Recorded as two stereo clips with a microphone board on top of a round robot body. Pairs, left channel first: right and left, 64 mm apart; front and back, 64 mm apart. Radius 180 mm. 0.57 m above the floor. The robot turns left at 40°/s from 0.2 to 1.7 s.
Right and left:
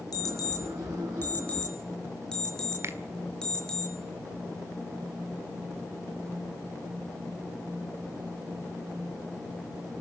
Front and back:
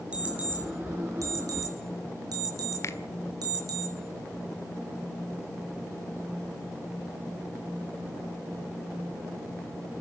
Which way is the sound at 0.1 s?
110° right.